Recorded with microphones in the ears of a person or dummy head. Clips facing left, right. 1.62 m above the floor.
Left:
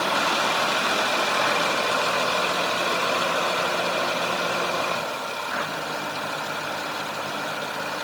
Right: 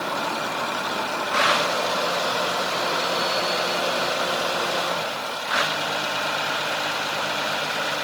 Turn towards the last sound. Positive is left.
No sound to turn to.